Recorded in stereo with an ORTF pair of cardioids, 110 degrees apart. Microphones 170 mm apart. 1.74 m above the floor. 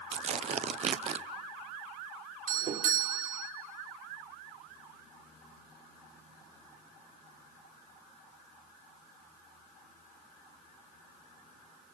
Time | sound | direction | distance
0.1 | tearing paper | 40° right | 0.5 m
2.5 | a doorbell | 50° right | 1.6 m